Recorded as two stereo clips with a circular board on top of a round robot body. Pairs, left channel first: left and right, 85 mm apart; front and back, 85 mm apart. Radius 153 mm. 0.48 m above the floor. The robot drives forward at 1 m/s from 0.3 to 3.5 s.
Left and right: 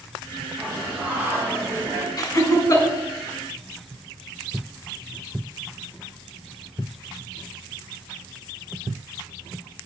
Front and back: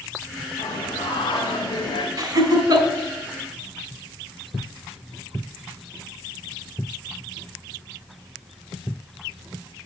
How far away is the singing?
About 3 m.